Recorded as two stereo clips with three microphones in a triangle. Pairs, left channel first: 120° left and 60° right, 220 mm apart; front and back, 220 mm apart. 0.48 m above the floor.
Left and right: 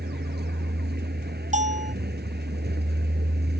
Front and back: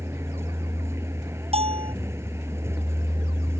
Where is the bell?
115° right.